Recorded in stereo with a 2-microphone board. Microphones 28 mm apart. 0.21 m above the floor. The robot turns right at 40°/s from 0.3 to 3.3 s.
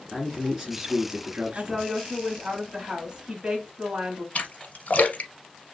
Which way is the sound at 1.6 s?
15° right (ahead or behind).